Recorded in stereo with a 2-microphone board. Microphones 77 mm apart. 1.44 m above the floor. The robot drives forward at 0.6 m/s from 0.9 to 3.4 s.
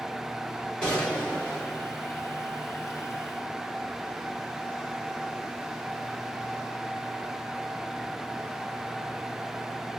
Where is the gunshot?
15° left (ahead or behind), 2.5 m.